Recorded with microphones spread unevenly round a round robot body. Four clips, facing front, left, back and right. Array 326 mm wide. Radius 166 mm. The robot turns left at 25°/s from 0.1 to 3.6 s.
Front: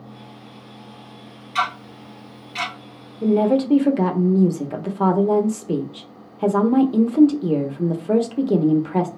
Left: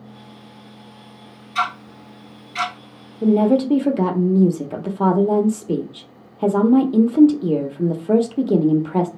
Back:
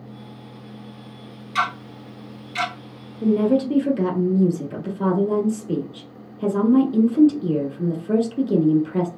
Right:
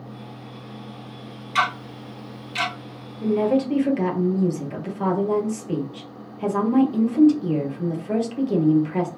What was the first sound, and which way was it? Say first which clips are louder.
Ticking: even, front 1 dB; 100° right.